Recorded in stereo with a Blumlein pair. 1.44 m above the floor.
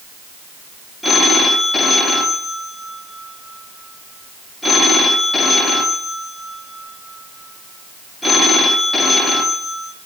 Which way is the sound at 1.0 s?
10° left.